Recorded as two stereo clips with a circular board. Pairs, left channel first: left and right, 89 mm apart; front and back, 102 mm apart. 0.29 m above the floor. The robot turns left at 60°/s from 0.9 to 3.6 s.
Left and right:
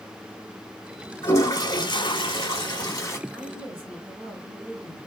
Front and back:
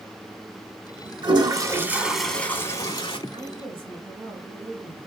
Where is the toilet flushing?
150° left, 1.0 m; by 3.2 s 30° left, 1.0 m.